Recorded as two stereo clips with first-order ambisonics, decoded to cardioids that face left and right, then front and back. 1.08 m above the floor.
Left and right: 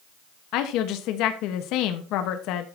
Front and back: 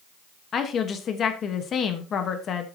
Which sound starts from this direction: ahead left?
A woman speaking, at 0.5 s.